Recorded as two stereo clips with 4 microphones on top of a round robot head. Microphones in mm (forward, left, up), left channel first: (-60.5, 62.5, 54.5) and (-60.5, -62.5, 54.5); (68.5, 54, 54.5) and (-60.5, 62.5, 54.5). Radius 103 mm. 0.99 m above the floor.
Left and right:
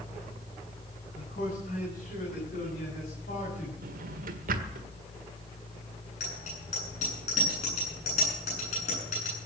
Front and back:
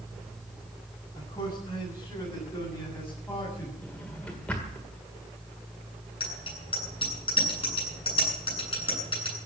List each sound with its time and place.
1.1 s a man speaking: 60° left, 9.5 m; by 3.7 s 65° left, 8 m
3.8 s a drawer: 90° right, 1.6 m
6.2 s a bicycle bell: 45° left, 9 m